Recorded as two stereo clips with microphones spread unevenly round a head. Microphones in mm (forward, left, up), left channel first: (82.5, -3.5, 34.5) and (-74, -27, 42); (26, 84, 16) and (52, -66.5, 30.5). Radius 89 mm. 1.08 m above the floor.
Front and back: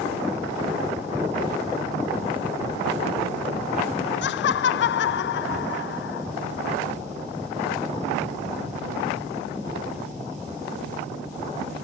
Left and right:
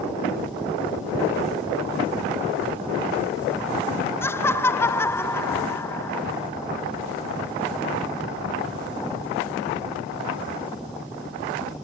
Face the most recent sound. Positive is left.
turn(degrees=25)